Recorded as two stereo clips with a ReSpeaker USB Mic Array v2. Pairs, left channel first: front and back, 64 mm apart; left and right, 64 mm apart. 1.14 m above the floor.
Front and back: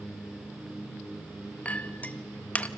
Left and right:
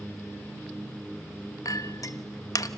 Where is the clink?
65° left, 1.0 m.